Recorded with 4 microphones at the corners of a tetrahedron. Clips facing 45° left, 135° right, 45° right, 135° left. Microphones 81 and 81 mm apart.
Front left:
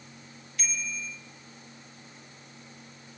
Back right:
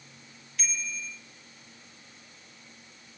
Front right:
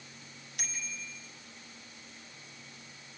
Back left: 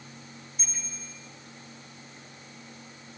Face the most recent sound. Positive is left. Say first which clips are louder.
# front left 1 dB, front right 5 dB
turn(degrees=-45)